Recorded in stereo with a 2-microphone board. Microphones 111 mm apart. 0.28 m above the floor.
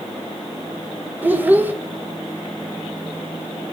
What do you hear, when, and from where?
1.2 s a child speaking: 15° right (ahead or behind), 0.7 m